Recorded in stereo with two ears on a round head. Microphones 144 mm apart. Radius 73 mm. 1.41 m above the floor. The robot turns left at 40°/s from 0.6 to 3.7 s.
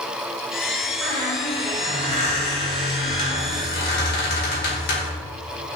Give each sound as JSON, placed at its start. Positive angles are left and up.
{"t": 1.0, "sound": "a squeak", "azimuth_deg": 180, "distance_m": 1.6}